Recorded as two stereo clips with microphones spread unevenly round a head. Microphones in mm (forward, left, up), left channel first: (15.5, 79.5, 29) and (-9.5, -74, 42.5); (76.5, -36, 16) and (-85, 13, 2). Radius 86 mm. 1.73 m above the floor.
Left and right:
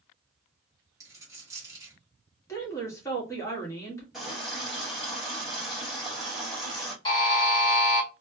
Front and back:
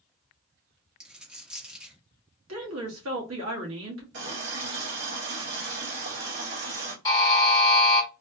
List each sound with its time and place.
1.0 s a dropped coin: 110° right, 1.1 m
2.5 s a woman speaking: 155° left, 1.6 m
4.1 s a running tap: 175° left, 1.7 m
7.0 s a buzzer: 30° left, 1.4 m